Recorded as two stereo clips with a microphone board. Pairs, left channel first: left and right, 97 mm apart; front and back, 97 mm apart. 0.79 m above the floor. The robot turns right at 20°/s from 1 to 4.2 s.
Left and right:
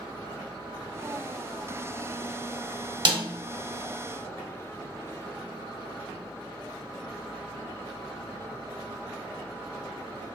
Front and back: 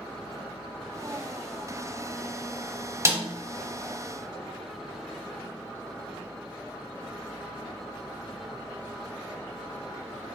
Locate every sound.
3.0 s a snare drum: 120° right, 0.8 m; by 3.2 s 115° right, 0.8 m